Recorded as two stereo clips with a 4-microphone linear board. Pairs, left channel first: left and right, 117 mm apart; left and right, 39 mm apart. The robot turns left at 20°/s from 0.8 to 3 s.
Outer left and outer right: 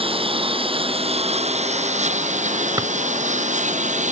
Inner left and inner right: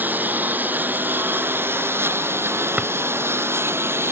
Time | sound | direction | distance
0.0 | a lawn mower | 50° right | ?
2.8 | a drawer | 35° right (ahead or behind) | ?